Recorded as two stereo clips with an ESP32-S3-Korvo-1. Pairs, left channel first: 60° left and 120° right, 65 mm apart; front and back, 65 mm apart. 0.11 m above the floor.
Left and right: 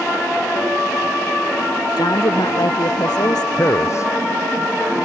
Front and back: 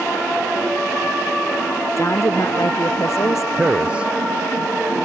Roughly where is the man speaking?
Left.